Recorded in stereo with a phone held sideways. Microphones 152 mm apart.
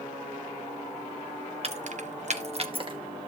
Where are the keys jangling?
45° right (ahead or behind), 0.7 m; by 3.0 s 35° right (ahead or behind), 1.1 m.